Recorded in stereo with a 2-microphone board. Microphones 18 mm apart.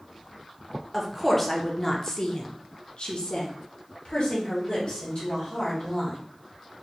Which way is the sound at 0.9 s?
5° left (ahead or behind).